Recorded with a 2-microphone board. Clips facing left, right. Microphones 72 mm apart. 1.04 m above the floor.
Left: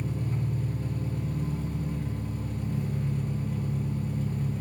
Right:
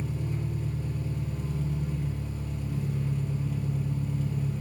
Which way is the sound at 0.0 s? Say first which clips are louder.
Left 1 dB; 45° left (ahead or behind).